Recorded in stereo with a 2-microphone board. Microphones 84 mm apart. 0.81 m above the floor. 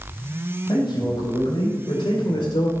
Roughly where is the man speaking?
Left.